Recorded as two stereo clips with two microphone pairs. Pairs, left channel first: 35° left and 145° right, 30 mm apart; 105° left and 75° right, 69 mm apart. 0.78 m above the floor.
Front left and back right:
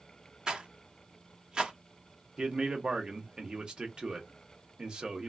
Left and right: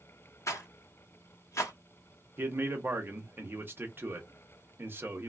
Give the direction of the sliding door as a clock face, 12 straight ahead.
No sliding door in this recording.